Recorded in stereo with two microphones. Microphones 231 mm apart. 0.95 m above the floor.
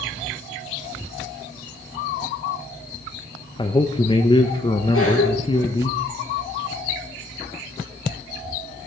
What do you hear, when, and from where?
3.6 s a man speaking: 20° left (ahead or behind), 0.6 m
4.9 s a cough: 75° left (ahead or behind), 3.5 m